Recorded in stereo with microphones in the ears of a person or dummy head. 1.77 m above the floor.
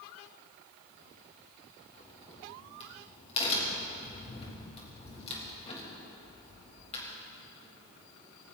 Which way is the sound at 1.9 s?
30° left (ahead or behind).